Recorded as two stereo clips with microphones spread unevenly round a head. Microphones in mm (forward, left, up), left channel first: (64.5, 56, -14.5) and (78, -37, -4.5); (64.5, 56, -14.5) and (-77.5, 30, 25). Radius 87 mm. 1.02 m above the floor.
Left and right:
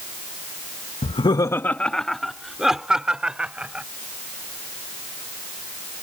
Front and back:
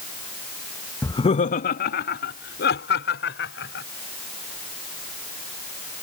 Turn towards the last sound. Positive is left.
turn(degrees=-5)